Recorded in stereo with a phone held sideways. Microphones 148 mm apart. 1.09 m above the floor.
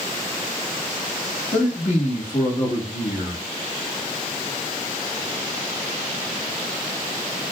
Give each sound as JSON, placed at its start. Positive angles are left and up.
{"t": 1.5, "sound": "a man speaking", "side_deg": 55, "distance_m": 1.4}